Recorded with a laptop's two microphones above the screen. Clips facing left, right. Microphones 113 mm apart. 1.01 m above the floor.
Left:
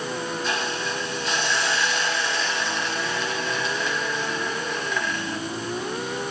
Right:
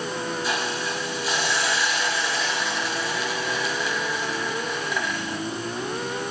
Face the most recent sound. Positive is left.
turn(degrees=-10)  # may be behind; listen again after turning